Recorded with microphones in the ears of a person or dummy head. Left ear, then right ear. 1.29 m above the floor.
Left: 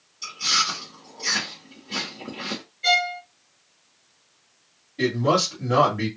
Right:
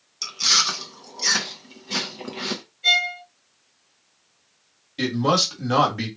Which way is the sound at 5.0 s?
85° right.